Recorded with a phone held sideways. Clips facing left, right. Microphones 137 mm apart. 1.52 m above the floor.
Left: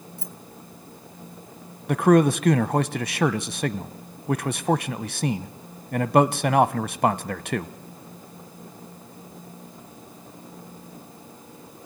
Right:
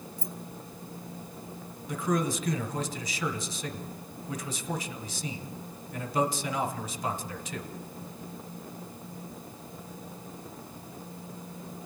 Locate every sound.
0.2 s keys jangling: 60° left (ahead or behind), 1.5 m
1.9 s a man speaking: 60° left (ahead or behind), 0.7 m